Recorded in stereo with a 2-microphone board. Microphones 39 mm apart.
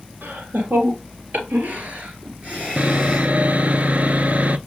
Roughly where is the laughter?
Right.